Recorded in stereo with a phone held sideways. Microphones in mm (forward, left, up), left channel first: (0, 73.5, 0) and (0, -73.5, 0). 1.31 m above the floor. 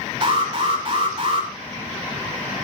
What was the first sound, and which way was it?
An alarm, 40° right (ahead or behind).